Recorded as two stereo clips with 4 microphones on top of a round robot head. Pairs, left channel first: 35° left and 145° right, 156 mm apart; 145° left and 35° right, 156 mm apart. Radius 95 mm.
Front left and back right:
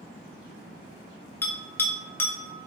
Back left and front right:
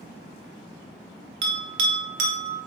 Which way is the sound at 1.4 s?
40° right.